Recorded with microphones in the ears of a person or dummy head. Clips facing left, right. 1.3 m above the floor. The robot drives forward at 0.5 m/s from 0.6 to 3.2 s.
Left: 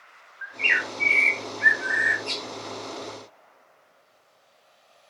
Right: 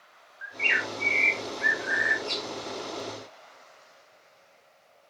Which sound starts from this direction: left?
A bird, at 0.4 s.